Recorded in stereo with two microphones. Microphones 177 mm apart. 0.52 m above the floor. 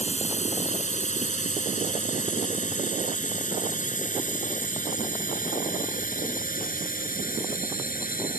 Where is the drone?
40° left (ahead or behind); by 8.4 s 55° left (ahead or behind).